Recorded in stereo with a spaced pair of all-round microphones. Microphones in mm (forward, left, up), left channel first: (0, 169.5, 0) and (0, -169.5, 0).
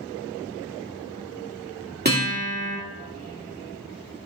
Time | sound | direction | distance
2.0 | a guitar | 30° right (ahead or behind) | 2.5 m